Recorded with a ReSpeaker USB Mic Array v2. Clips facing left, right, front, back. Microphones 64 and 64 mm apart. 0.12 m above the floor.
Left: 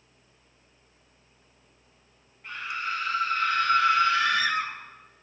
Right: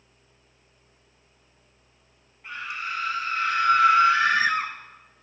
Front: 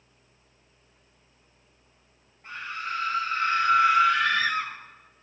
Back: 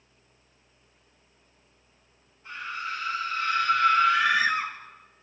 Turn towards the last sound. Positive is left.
turn(degrees=-135)